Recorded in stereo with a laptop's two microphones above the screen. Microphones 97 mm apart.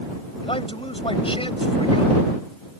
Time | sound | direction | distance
0.4 | a man speaking | 75° left (ahead or behind) | ?